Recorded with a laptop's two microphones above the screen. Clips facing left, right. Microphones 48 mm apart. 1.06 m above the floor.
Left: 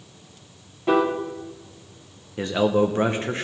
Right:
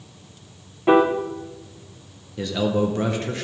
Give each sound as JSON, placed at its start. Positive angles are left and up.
{"t": 0.9, "sound": "a piano", "side_deg": -25, "distance_m": 0.6}
{"t": 2.4, "sound": "a man speaking", "side_deg": 30, "distance_m": 0.6}